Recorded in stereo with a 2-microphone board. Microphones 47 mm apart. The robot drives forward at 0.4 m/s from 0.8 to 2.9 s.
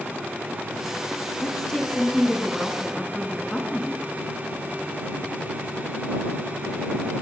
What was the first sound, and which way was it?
A woman speaking, 10° left (ahead or behind).